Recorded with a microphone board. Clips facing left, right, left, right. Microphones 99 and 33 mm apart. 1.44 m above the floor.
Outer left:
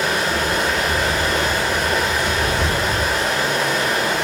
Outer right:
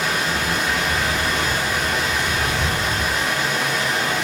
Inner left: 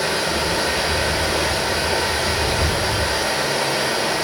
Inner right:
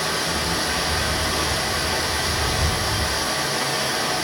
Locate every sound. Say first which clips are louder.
0.0 s running water: outer left 3 dB, inner left 3 dB; 70° left (ahead or behind), 2.5 m